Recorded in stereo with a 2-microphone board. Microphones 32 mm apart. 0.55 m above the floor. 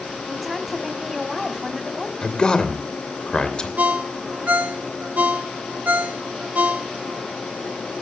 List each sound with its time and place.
0.3 s a woman speaking: 5° right (ahead or behind), 3.5 m
2.2 s a man speaking: 30° left (ahead or behind), 2.5 m
3.8 s a ringtone: 65° right (ahead or behind), 1.1 m